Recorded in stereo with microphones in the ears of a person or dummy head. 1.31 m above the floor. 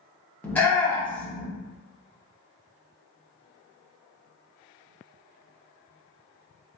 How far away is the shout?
About 0.7 m.